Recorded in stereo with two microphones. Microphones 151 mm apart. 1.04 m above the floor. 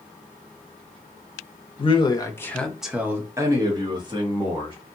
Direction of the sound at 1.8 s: 40° left (ahead or behind).